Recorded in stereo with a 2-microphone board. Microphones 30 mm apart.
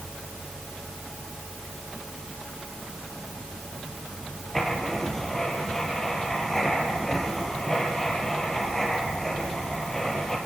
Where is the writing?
10° left (ahead or behind), 4 m.